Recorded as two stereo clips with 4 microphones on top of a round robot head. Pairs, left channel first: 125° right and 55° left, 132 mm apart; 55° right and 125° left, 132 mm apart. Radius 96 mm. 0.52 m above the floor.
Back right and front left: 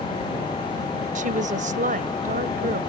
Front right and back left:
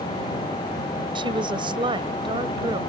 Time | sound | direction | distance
1.1 | a woman speaking | 75° left | ?